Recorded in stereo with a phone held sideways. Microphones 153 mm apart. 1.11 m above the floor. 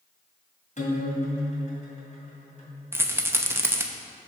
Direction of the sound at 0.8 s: 55° left (ahead or behind).